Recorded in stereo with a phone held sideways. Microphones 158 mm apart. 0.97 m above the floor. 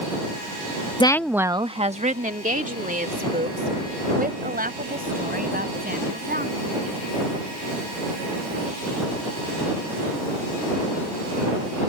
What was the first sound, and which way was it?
A woman speaking, 30° left (ahead or behind).